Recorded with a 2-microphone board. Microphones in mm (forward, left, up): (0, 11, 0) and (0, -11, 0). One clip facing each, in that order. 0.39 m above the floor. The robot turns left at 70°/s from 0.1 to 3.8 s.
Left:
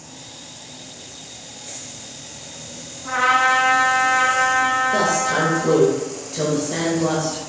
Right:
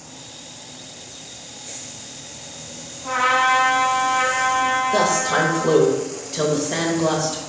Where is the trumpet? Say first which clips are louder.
Left 1 dB; 140° right, 3 m; by 5.8 s 170° left, 3 m.